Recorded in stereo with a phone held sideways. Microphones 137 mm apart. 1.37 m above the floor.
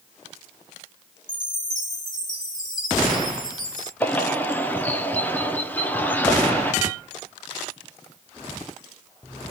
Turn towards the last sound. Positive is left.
turn(degrees=10)  # may be behind; listen again after turning